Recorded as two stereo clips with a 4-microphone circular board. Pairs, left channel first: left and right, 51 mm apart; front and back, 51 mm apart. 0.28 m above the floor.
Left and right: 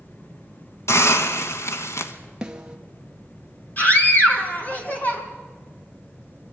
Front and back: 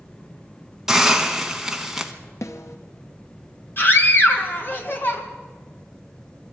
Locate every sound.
0.9 s a hiss: 100° left, 1.3 m
2.4 s a snare drum: 15° right, 1.3 m
3.8 s a scream: 40° left, 3 m